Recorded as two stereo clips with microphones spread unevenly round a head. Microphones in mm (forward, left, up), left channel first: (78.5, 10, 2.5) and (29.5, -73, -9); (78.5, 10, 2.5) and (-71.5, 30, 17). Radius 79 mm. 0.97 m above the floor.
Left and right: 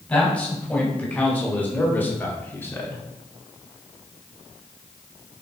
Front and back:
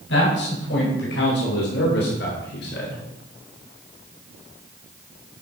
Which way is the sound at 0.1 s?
15° right.